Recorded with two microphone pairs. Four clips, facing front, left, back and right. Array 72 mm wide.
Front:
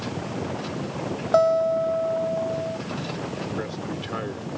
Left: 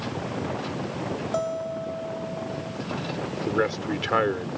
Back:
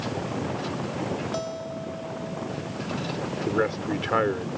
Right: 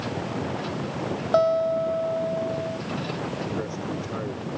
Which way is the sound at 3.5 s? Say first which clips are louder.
Left 5 dB, back 5 dB; 130° left.